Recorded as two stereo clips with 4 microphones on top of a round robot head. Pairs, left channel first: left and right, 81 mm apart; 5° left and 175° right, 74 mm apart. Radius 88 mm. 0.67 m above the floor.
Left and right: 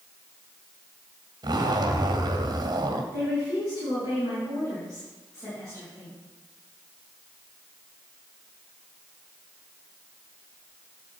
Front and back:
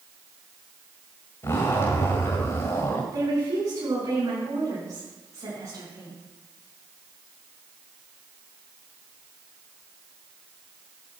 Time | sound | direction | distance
1.4 | a zipper | 55° right | 2.0 m
3.1 | a woman speaking | 150° left | 6 m